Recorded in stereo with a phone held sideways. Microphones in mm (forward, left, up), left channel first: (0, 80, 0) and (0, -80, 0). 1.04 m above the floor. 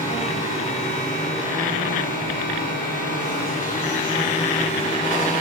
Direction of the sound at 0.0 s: 55° left (ahead or behind).